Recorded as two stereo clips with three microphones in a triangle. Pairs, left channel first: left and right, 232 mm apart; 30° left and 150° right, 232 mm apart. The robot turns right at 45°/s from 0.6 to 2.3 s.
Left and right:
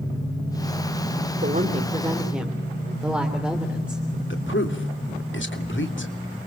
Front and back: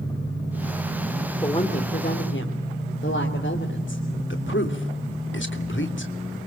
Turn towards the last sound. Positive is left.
turn(degrees=60)